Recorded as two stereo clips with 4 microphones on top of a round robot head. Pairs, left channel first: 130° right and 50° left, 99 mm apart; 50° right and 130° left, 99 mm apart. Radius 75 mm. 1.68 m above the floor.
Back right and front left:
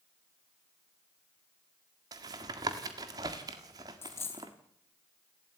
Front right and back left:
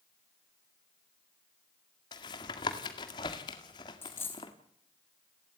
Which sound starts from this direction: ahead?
Tapping, at 2.1 s.